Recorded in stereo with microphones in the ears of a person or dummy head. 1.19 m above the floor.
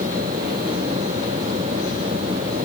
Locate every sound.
Only background noise.